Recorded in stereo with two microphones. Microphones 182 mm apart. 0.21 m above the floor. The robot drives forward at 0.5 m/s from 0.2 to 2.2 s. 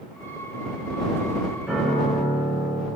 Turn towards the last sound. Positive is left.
turn(degrees=-5)  # may be behind; listen again after turning